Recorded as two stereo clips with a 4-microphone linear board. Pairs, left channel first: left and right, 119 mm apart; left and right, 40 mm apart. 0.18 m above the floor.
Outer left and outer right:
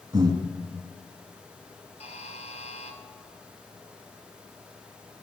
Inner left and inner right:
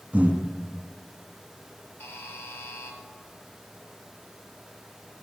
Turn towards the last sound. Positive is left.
turn(degrees=60)  # may be behind; listen again after turning